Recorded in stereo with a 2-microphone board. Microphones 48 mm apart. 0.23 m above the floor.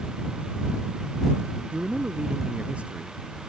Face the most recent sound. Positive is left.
turn(degrees=-25)  # may be behind; listen again after turning